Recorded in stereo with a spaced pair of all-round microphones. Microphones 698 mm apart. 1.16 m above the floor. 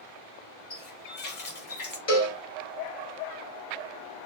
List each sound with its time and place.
0.7 s a running tap: 70° left (ahead or behind), 1.1 m
2.1 s a cowbell: 50° left (ahead or behind), 1.1 m